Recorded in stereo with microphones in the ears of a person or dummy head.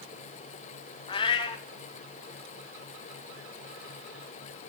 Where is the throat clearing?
I don't hear throat clearing.